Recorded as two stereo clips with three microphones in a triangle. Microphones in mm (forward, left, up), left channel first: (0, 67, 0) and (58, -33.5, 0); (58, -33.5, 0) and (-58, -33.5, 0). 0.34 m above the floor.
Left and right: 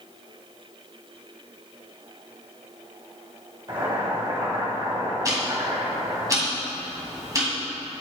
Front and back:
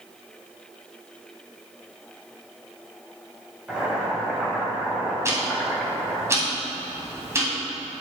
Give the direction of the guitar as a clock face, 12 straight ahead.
No guitar in this recording.